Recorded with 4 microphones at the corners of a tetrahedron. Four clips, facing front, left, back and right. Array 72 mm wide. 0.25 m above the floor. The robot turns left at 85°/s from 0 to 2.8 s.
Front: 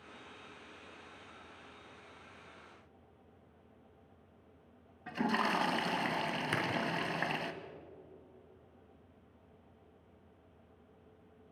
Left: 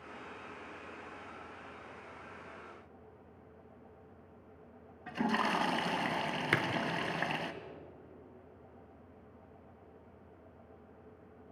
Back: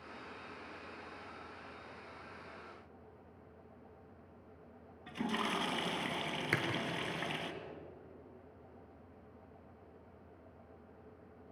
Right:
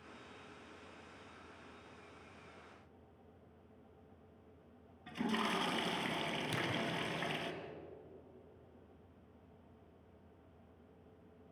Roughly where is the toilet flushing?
Ahead left.